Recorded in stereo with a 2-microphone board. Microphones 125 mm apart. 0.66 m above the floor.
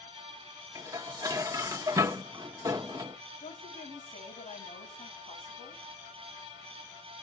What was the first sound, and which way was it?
Dishes clattering, 30° right (ahead or behind).